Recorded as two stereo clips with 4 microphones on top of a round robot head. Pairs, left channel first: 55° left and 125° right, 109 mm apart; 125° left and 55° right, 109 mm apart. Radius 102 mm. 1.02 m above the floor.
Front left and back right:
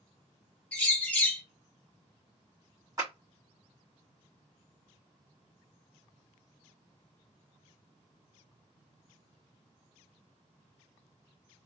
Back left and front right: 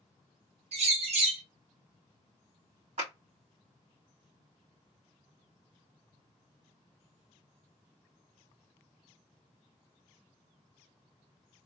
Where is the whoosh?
No whoosh in this recording.